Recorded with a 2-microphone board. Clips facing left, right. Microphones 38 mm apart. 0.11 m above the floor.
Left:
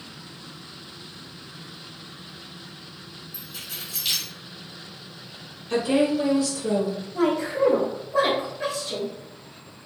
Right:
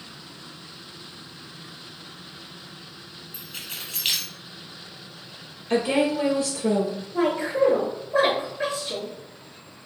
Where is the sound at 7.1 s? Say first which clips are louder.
Right 1 dB; 40° right (ahead or behind), 1.9 m.